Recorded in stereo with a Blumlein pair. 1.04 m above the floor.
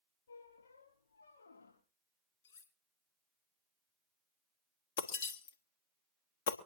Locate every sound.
0.3 s a squeak: 65° left, 6 m
2.4 s cutlery clinking: 55° left, 3 m
5.0 s breaking glass: 60° left, 1.3 m